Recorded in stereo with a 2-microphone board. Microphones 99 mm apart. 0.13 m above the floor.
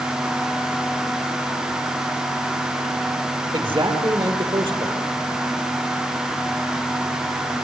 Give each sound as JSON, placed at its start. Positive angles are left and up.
{"t": 3.5, "sound": "a man speaking", "side_deg": -55, "distance_m": 4.0}